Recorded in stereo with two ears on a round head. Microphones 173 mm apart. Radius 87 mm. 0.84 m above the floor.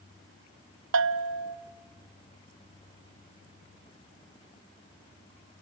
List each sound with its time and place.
0.9 s a bell: 70° right (ahead or behind), 0.7 m